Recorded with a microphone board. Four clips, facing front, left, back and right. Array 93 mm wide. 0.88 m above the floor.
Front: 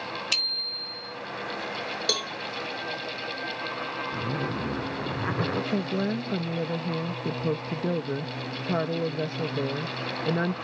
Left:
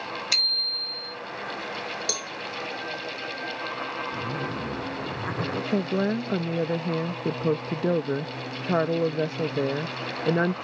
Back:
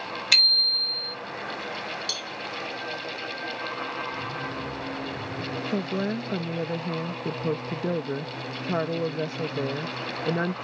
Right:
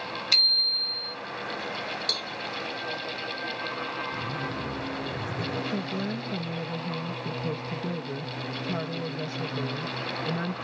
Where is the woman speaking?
100° left.